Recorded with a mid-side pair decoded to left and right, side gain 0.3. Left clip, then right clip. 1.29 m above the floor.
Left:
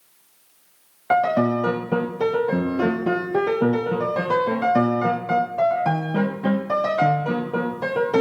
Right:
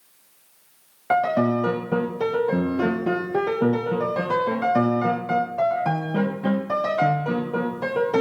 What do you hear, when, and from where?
1.1 s a piano: 20° left, 0.8 m